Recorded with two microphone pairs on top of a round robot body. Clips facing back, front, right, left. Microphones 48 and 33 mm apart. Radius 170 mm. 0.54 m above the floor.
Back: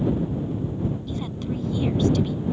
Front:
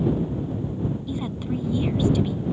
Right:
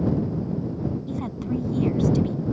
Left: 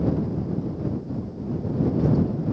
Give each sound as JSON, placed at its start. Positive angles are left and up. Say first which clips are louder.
{"t": 1.1, "sound": "a woman speaking", "louder": "front 1 dB, right 2 dB", "azimuth_deg": -80}